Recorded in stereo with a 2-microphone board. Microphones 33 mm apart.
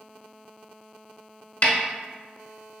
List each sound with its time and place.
1.6 s a snare drum: 55° left (ahead or behind), 0.7 m